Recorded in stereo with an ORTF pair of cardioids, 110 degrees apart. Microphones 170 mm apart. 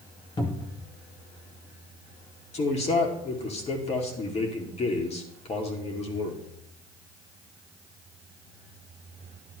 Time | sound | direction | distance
0.4 | a cupboard door | 25° left | 1.9 m
2.5 | a man speaking | 40° left | 2.5 m